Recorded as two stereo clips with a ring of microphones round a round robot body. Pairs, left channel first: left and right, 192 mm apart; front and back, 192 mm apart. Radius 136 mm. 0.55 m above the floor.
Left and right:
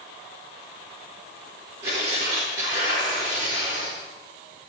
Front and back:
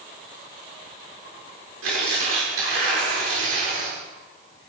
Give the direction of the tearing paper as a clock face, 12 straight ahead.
5 o'clock.